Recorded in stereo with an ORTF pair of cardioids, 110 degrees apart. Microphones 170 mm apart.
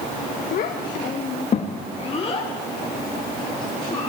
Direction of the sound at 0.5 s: 55° left.